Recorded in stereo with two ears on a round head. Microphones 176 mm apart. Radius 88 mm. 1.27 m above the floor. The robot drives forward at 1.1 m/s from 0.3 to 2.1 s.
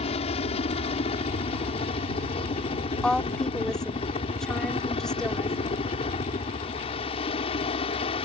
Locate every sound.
0.0 s a helicopter: 35° left (ahead or behind); by 8.2 s 30° left (ahead or behind)
3.0 s a woman speaking: 5° left (ahead or behind)